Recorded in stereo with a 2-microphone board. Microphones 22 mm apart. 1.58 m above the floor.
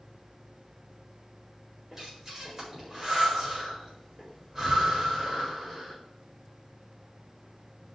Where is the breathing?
20° right (ahead or behind), 4 m.